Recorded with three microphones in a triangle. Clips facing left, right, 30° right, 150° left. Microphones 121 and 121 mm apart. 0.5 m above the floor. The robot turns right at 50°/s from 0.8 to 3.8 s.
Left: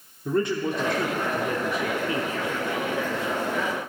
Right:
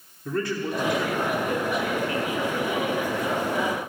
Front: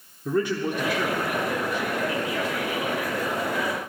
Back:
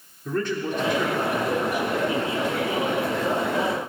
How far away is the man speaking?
About 1.0 m.